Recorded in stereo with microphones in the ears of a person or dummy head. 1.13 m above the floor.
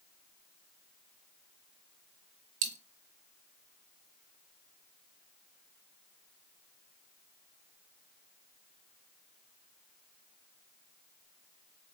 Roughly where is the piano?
I don't hear a piano.